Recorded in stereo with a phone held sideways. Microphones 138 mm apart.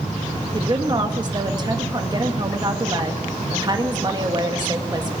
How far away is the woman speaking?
About 1.6 m.